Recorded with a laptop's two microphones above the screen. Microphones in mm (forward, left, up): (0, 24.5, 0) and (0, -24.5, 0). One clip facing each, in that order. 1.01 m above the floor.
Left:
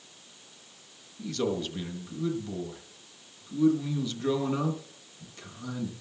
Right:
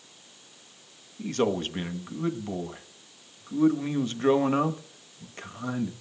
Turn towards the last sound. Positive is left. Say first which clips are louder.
# right 4 dB
turn(degrees=-45)  # may be behind; listen again after turning